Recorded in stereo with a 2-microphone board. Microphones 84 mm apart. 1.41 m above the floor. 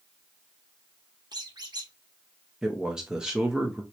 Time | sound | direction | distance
1.3 | a squeak | 55° right (ahead or behind) | 1.0 m
2.6 | a man speaking | 10° right (ahead or behind) | 0.8 m